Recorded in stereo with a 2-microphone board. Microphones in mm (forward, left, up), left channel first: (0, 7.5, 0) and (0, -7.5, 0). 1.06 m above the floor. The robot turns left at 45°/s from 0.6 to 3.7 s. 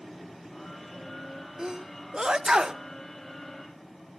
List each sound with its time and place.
1.6 s a sneeze: 40° right (ahead or behind), 1.0 m; by 2.8 s 60° right (ahead or behind), 1.0 m